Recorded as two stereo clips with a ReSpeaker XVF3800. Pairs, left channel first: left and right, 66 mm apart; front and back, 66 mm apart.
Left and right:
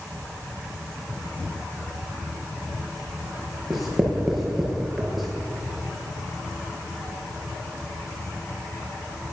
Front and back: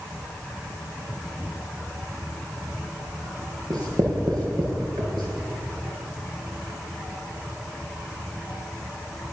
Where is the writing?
Straight behind, 8 m.